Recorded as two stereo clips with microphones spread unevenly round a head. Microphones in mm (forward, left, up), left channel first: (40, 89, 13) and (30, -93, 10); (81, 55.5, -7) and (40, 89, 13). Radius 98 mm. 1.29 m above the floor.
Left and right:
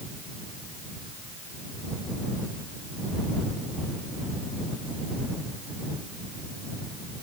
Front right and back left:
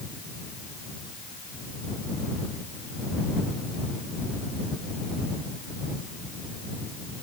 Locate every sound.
Only background noise.